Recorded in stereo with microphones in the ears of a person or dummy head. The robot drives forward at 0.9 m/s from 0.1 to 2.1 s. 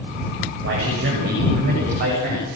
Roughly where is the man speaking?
Right.